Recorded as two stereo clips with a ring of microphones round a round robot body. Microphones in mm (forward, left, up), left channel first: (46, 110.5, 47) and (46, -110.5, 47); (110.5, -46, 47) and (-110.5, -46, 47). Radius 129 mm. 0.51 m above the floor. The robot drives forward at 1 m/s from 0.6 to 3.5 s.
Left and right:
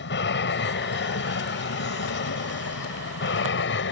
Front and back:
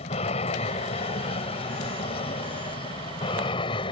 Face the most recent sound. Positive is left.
turn(degrees=65)